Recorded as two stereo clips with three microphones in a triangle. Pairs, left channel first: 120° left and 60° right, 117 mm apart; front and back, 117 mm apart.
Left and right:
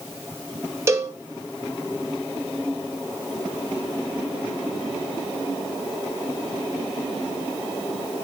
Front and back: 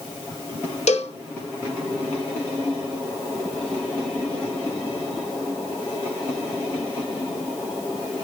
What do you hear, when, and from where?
0.9 s a cowbell: 5° left, 1.0 m